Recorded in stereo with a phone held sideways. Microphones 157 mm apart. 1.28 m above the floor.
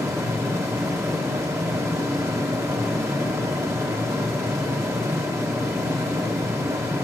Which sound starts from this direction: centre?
A fan, at 0.0 s.